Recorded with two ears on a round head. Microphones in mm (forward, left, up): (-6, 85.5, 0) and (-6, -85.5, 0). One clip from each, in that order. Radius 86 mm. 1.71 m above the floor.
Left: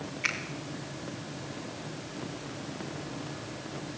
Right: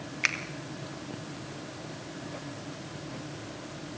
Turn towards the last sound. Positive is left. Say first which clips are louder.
# right 3 dB
turn(degrees=-55)  # may be behind; listen again after turning